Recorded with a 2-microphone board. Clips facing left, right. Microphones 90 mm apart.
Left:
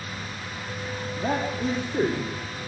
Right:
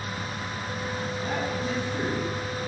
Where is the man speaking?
50° left (ahead or behind), 6 m.